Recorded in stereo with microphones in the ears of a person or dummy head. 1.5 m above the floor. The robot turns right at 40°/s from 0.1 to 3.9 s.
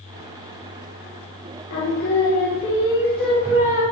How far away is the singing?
About 5.5 m.